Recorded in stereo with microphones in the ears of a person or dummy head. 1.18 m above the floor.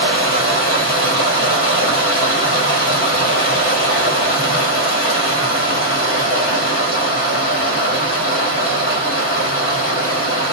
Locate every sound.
0.0 s running water: 40° left (ahead or behind), 1.3 m